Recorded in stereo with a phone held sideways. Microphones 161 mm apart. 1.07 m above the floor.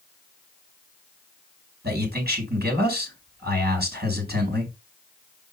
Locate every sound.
1.8 s a man speaking: 85° right, 4 m